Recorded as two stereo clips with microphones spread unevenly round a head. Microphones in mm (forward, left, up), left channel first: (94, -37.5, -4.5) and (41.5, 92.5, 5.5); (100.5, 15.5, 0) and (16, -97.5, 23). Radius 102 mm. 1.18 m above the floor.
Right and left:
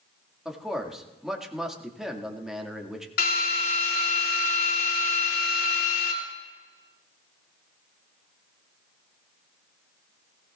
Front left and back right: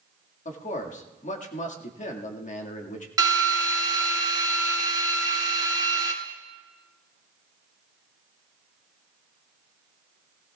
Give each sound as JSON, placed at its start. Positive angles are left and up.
{"t": 0.5, "sound": "a man speaking", "azimuth_deg": 25, "distance_m": 1.9}
{"t": 3.2, "sound": "a drill", "azimuth_deg": -65, "distance_m": 2.5}